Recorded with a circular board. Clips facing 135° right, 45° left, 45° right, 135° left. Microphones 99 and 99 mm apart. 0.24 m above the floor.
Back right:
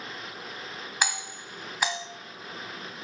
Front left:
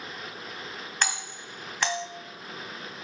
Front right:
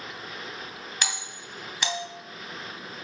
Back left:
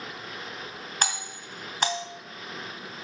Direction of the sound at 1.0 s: 150° left.